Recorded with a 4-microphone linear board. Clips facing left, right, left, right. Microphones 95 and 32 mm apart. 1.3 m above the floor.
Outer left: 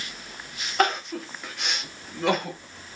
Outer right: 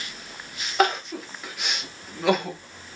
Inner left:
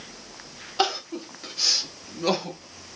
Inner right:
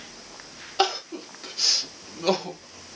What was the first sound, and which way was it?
Crying, 5° right (ahead or behind).